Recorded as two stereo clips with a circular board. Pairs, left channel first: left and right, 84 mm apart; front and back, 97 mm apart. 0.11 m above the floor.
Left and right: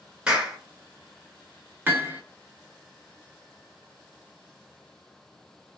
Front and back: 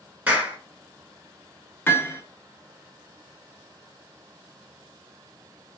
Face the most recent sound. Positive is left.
turn(degrees=-45)